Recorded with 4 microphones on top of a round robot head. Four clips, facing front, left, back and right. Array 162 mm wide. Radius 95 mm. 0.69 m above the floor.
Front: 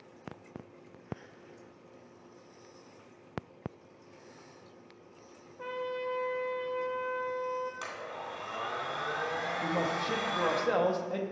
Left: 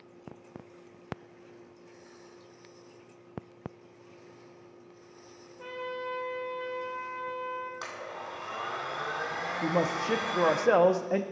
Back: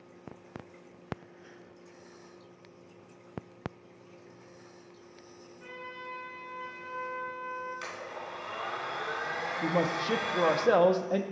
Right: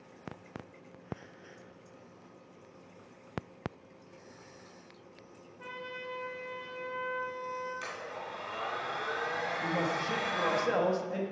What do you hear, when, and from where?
5.6 s a trumpet: 15° left, 1.3 m
7.8 s a blender: 55° left, 3 m
9.6 s a man speaking: 125° left, 0.9 m